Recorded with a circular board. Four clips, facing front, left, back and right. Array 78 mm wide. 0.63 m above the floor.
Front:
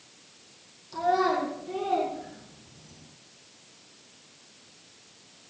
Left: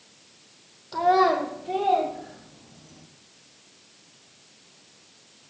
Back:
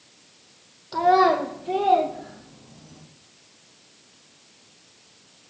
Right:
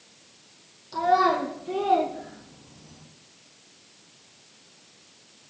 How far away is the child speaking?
About 1.0 m.